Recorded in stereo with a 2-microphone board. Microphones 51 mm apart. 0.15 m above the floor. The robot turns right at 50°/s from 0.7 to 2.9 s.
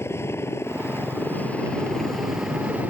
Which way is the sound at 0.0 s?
60° left (ahead or behind).